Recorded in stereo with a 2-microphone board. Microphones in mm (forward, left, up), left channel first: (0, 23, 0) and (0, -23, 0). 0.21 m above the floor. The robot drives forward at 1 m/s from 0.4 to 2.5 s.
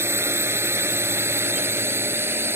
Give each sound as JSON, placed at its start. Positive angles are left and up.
{"t": 0.0, "sound": "a drone", "side_deg": -65}